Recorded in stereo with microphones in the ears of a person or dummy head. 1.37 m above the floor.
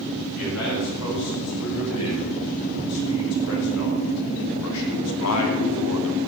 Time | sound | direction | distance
0.3 | a man speaking | 85° left | 8 m